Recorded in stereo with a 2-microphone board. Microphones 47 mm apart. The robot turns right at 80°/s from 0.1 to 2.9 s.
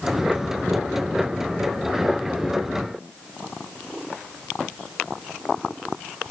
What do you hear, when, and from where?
Only background noise.